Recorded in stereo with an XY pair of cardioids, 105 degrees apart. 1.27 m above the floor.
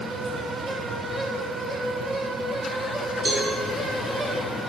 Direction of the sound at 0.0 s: 35° right.